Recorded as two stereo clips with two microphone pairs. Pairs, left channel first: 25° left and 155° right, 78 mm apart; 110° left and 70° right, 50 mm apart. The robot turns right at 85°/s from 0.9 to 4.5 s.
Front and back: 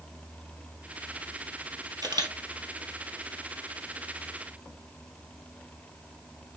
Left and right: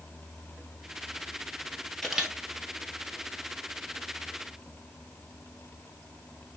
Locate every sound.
2.0 s a camera shutter: 160° right, 1.9 m; by 2.3 s 135° right, 1.9 m